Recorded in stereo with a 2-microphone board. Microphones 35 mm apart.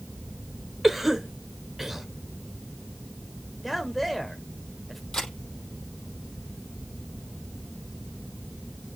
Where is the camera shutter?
15° left (ahead or behind), 4.5 m.